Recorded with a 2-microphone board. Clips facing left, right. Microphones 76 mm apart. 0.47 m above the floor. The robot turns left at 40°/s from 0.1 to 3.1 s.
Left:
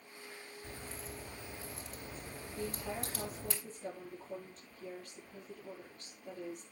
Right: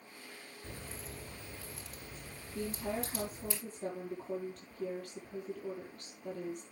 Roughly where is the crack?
Centre.